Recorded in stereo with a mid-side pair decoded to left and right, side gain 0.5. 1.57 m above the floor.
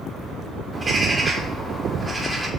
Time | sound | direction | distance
0.7 | a bird | 25° right | 0.6 m